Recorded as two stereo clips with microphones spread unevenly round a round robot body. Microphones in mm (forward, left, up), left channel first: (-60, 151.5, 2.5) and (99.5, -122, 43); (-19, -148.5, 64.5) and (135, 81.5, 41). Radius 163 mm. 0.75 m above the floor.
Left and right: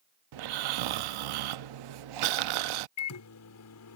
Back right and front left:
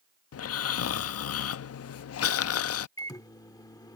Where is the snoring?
80° right.